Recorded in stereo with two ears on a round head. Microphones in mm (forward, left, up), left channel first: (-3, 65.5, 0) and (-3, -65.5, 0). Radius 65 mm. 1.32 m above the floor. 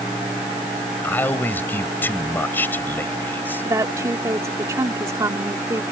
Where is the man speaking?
15° left (ahead or behind).